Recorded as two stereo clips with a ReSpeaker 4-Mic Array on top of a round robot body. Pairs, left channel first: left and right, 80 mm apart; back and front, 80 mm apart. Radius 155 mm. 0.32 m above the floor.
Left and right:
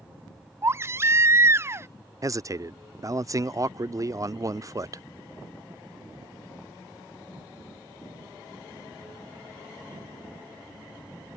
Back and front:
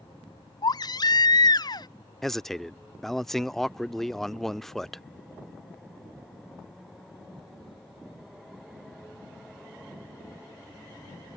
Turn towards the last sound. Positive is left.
turn(degrees=-95)